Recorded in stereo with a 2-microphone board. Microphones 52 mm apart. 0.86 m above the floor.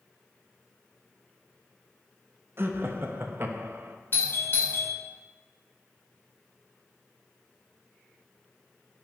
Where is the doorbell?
45° left (ahead or behind), 1.4 m.